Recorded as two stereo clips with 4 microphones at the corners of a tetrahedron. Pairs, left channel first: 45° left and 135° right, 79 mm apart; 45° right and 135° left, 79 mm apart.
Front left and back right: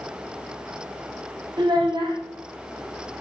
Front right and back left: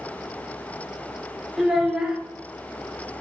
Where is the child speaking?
145° right, 0.6 m.